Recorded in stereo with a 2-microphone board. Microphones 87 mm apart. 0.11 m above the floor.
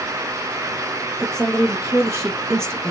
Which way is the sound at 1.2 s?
35° right (ahead or behind).